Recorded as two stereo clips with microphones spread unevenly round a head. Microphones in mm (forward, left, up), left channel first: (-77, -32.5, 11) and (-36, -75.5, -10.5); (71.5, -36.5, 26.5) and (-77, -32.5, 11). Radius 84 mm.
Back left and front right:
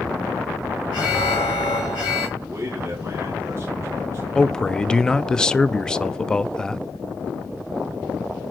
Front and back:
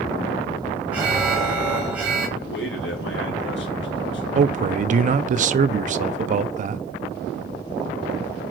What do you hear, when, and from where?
0.9 s an alarm: 95° left, 3 m
2.4 s a man speaking: 30° left, 3.5 m
4.3 s a man speaking: 140° right, 0.7 m